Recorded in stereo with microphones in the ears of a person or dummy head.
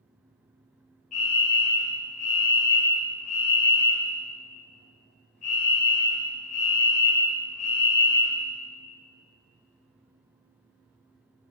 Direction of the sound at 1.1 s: 35° left (ahead or behind).